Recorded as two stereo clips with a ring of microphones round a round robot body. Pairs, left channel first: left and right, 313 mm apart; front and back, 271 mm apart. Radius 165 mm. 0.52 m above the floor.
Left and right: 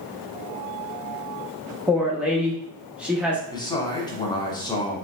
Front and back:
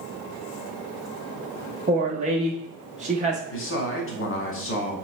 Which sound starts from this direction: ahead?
A man speaking, at 3.5 s.